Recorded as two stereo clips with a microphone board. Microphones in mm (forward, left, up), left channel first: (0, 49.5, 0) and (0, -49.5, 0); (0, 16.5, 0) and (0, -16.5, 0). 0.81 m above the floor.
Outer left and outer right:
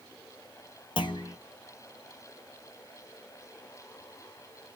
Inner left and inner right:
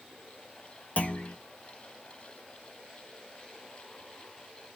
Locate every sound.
1.0 s a clunk: 55° left (ahead or behind), 0.6 m